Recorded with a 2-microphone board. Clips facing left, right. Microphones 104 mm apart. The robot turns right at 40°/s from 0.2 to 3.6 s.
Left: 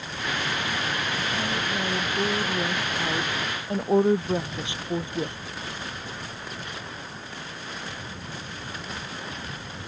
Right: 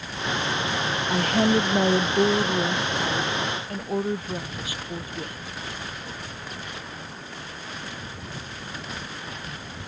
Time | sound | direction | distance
1.1 | a woman speaking | 70° right | ?